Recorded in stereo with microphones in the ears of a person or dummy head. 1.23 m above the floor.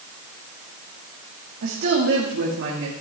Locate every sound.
1.6 s a woman speaking: 65° right (ahead or behind), 1.9 m